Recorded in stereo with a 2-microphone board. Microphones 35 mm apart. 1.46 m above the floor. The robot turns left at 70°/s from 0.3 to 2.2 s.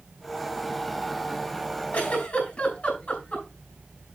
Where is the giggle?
55° left (ahead or behind), 6.5 m; by 3.5 s 40° left (ahead or behind), 6.5 m.